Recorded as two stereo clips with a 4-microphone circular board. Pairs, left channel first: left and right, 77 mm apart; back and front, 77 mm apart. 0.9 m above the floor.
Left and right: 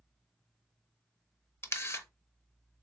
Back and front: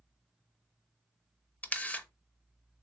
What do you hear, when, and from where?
1.6 s a camera shutter: 120° left, 0.8 m